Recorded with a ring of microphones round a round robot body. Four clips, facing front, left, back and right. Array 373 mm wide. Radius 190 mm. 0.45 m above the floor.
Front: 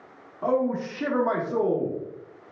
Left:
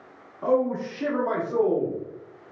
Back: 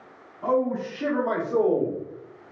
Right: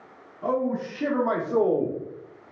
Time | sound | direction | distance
0.4 | a man speaking | 25° left | 1.0 m